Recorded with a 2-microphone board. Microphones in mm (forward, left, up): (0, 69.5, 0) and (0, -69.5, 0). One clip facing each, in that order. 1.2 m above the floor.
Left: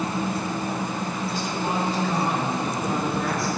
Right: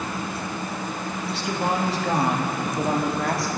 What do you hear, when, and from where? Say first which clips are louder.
1.2 s a woman speaking: right 4 dB; 65° right (ahead or behind), 1.9 m; by 3.5 s 85° right, 3 m